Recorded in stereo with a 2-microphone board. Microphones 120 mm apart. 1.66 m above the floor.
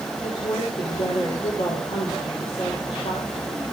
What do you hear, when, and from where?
0.2 s a woman speaking: 70° left (ahead or behind), 5.5 m